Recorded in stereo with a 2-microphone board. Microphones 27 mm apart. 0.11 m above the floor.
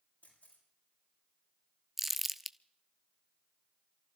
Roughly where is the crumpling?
Centre.